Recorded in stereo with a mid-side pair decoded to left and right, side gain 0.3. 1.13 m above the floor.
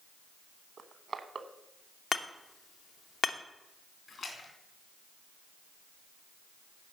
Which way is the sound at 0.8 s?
60° right.